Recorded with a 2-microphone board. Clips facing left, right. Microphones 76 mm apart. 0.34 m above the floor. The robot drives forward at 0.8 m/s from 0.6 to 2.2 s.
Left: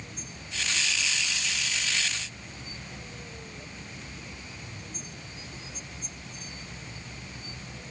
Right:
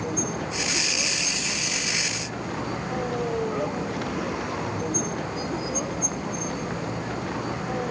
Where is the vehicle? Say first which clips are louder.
Right 16 dB; 75° right (ahead or behind).